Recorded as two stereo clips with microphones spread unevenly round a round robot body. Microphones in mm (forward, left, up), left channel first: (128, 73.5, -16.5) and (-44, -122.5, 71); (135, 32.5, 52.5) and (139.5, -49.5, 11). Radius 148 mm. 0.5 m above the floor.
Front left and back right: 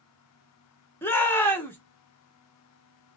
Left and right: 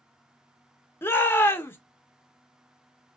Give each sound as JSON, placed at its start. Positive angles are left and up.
{"t": 1.0, "sound": "a shout", "azimuth_deg": 0, "distance_m": 0.8}